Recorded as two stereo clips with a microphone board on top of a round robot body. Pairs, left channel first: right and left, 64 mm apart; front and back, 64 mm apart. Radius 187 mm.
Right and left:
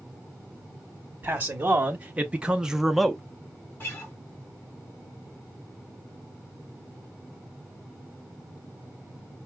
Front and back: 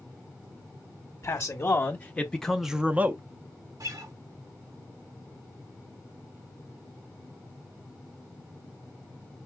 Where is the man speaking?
35° left, 1.3 m; by 3.2 s 170° right, 0.9 m.